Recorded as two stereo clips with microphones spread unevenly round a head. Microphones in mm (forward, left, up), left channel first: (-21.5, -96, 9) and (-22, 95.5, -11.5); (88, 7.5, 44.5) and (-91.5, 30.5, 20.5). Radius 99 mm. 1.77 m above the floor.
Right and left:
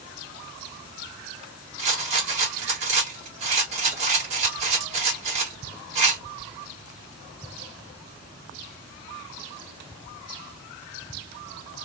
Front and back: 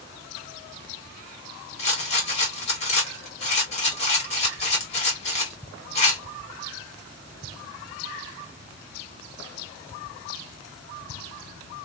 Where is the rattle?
35° left, 1.9 m.